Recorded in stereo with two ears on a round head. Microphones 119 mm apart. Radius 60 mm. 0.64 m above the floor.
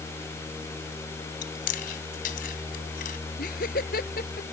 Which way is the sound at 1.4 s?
75° left (ahead or behind).